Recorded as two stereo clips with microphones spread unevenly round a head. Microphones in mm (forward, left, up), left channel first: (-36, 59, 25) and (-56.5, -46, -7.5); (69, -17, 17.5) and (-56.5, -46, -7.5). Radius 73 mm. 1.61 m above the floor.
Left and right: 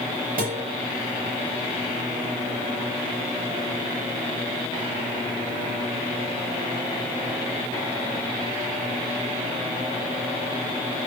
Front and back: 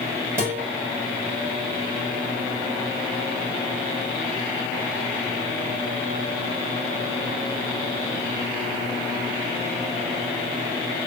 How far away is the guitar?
About 4.5 m.